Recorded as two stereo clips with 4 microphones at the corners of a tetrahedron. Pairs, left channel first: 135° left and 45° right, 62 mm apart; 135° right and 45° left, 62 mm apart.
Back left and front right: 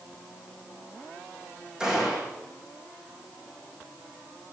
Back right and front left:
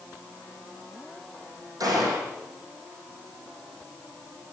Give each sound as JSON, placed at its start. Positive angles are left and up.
{"t": 1.8, "sound": "a gunshot", "azimuth_deg": 35, "distance_m": 4.5}